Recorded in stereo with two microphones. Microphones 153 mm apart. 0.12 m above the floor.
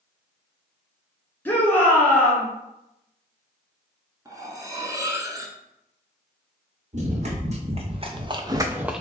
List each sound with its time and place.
1.4 s a shout: 10° left (ahead or behind), 1.7 m
4.2 s cutlery clinking: 25° right (ahead or behind), 0.7 m
6.9 s running footsteps: 50° right (ahead or behind), 1.6 m; by 9.0 s centre (ahead or behind), 0.6 m